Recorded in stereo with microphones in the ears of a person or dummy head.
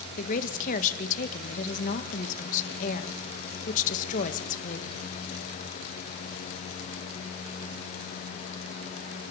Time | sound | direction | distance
0.2 | a woman speaking | 45° left (ahead or behind) | 1.6 m